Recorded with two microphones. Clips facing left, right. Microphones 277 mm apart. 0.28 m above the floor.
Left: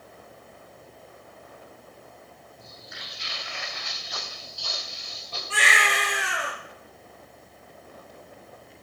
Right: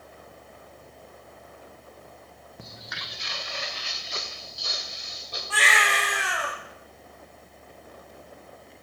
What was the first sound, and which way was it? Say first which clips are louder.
Footsteps: right 5 dB; 75° right (ahead or behind).